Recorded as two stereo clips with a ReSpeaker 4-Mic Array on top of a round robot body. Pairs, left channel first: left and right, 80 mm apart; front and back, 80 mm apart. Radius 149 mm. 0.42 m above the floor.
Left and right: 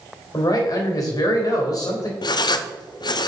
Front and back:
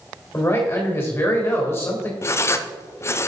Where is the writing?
55° left, 0.5 m.